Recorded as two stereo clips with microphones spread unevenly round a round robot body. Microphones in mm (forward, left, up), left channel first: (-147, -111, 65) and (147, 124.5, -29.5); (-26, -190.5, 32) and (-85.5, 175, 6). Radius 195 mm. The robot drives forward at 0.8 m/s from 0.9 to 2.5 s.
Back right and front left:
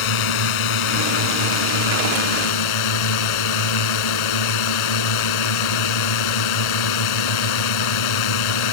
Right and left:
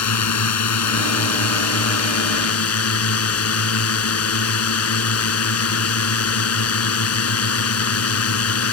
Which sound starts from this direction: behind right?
A drone, at 0.0 s.